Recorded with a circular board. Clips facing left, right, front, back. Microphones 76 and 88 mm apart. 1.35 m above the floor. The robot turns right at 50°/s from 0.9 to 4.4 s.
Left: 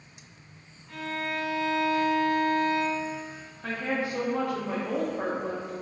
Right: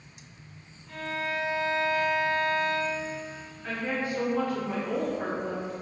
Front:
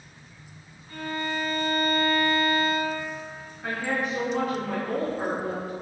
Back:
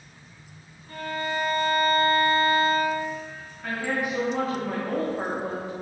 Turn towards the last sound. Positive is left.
turn(degrees=115)